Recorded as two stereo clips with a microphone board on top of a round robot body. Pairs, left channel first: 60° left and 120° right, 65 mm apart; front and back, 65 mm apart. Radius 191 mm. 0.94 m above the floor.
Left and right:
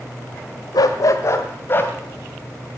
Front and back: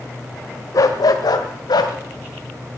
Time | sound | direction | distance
0.7 | a dog barking | 35° left | 1.2 m